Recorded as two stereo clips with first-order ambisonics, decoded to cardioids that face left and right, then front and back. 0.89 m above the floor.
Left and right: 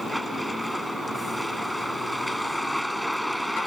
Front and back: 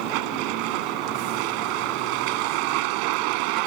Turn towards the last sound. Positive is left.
turn(degrees=180)